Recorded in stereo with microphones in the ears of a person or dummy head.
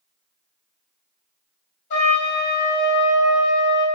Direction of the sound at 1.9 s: 35° left (ahead or behind).